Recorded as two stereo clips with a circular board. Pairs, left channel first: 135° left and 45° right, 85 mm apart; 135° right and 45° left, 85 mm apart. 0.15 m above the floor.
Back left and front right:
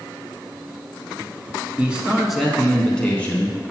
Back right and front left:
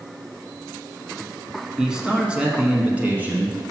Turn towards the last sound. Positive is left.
turn(degrees=90)